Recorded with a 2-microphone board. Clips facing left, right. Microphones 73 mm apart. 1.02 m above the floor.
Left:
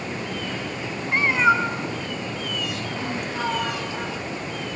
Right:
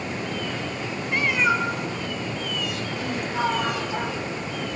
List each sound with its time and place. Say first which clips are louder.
1.1 s a cat meowing: left 4 dB; 30° left (ahead or behind), 3.5 m
3.3 s a sliding door: right 3 dB; 20° right (ahead or behind), 3 m